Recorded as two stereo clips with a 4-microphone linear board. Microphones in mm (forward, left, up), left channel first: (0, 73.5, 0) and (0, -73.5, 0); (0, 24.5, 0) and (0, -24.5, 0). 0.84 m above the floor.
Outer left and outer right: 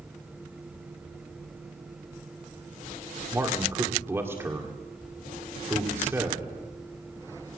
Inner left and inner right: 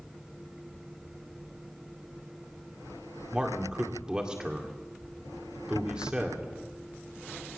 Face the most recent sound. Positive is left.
turn(degrees=-15)  # may be behind; listen again after turning